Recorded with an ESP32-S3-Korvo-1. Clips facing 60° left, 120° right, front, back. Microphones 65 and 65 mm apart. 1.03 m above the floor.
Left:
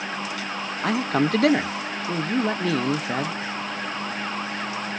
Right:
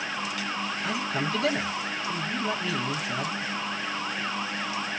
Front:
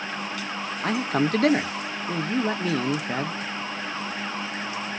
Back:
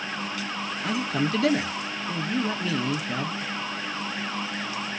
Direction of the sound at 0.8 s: 35° left.